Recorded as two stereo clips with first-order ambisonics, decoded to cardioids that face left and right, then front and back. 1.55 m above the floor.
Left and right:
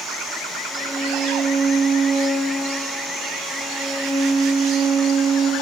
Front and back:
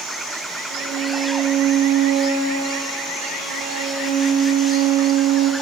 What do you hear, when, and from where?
0.7 s a violin: 165° right, 2 m